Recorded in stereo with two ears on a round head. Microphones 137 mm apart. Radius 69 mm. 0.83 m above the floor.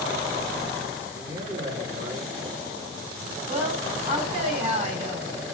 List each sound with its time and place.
1.1 s a man speaking: 45° right (ahead or behind), 8.5 m
3.5 s a woman speaking: 45° right (ahead or behind), 6.5 m